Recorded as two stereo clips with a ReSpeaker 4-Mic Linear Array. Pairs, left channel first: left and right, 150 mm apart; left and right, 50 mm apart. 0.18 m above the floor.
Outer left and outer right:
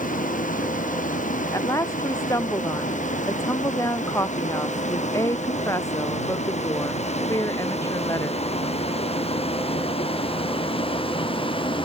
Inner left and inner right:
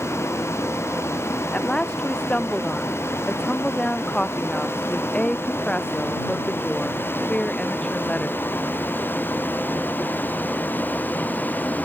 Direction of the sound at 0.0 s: 65° left (ahead or behind).